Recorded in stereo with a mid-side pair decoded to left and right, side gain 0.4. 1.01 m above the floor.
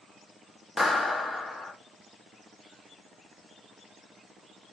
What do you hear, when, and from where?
0.8 s a clap: 30° left, 0.8 m